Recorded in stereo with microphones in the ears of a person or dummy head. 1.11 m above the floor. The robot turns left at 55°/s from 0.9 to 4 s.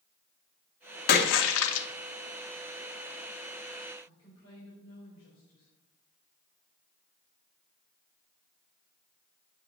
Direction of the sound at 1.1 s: 120° left.